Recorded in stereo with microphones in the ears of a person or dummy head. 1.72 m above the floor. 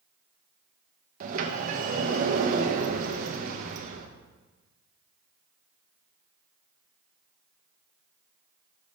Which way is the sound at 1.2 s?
45° right (ahead or behind).